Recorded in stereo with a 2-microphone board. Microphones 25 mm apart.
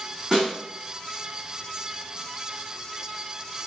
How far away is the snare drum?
About 1.5 m.